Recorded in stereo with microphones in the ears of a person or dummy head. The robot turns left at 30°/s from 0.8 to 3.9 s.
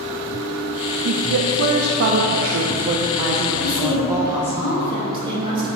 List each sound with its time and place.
1.1 s a woman speaking: 85° right, 0.6 m; by 4.6 s 170° right, 0.6 m
3.6 s a woman speaking: 25° right (ahead or behind), 2 m; by 5.7 s 30° right (ahead or behind), 2 m